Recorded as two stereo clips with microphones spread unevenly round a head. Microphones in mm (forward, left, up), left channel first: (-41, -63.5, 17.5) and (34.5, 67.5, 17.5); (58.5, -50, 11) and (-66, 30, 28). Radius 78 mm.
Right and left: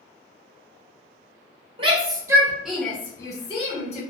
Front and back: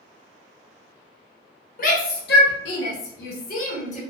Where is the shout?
5° left, 0.9 m; by 4.0 s 75° right, 0.9 m.